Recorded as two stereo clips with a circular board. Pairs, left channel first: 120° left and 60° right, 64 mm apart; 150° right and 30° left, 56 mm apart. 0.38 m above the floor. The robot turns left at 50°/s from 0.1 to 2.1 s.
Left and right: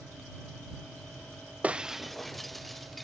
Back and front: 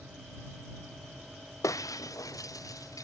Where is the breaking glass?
130° right; by 3.0 s 155° right.